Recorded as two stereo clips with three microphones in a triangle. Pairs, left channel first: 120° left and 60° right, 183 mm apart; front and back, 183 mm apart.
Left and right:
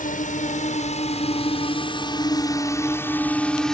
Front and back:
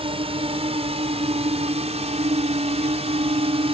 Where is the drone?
135° left; by 3.7 s 155° right.